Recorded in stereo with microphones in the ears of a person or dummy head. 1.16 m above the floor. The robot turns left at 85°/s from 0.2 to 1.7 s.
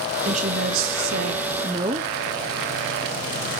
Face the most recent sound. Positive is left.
turn(degrees=-160)